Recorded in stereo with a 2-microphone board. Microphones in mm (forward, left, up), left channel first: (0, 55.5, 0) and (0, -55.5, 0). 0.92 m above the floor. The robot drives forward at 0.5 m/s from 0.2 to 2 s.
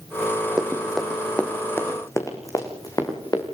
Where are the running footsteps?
5° right (ahead or behind), 3 m; by 3.4 s 35° left (ahead or behind), 5.5 m.